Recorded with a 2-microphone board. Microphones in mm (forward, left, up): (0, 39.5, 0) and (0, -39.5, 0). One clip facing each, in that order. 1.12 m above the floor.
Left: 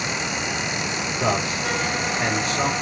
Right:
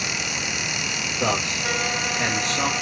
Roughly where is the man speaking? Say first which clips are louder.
Left 1 dB; centre.